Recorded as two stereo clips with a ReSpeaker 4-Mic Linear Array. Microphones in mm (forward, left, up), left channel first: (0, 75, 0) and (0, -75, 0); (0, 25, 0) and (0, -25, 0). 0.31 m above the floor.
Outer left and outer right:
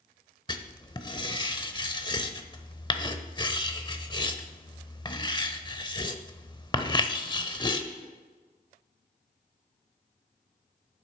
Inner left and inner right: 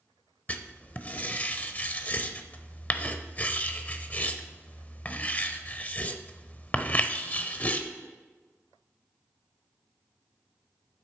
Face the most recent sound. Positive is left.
turn(degrees=30)  # may be behind; listen again after turning